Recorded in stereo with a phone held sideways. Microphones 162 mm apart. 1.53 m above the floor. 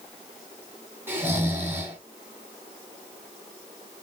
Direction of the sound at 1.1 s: 15° right (ahead or behind).